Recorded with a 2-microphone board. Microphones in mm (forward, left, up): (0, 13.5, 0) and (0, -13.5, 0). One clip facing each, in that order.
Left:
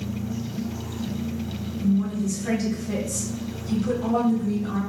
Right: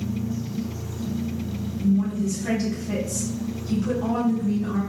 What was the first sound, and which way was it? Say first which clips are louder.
A woman speaking: right 1 dB; 20° right (ahead or behind).